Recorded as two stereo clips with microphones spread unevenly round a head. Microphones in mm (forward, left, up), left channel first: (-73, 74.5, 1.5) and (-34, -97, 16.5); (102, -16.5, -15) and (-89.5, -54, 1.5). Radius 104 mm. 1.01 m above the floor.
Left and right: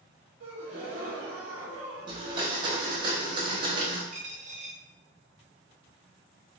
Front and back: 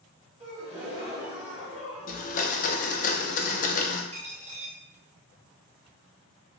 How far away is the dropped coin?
About 0.9 m.